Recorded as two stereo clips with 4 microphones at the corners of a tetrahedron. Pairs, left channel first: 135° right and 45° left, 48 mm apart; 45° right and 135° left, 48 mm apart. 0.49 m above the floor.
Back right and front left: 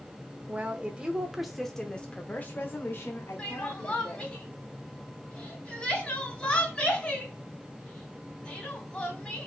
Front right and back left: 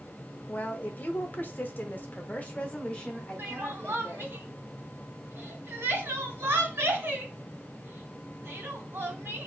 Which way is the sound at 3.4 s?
155° left.